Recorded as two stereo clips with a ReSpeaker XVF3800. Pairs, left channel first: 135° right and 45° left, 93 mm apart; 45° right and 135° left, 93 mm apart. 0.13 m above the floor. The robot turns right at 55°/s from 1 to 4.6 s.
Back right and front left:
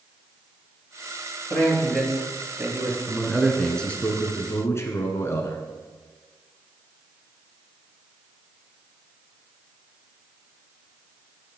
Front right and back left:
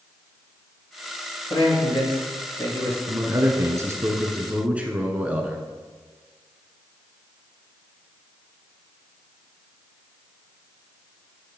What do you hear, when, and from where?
1.5 s a man speaking: 70° right, 3 m; by 3.0 s 10° left, 3 m
3.1 s a man speaking: 115° left, 1.2 m; by 5.6 s 160° right, 1.2 m